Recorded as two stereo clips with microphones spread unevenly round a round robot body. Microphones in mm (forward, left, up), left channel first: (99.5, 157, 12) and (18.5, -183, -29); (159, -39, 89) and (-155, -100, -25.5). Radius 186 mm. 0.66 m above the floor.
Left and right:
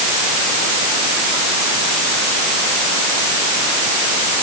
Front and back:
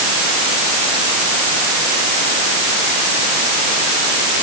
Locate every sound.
Only background noise.